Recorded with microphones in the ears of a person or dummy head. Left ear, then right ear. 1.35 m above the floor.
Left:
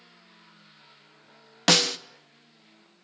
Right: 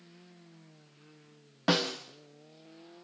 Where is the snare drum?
70° left (ahead or behind), 1.2 m.